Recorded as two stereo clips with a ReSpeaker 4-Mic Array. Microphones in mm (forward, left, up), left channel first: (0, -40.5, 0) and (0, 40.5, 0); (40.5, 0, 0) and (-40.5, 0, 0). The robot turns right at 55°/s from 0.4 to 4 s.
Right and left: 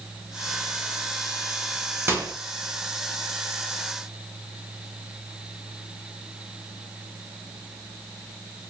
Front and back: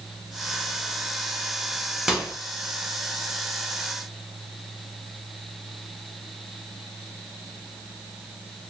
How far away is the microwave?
About 0.7 m.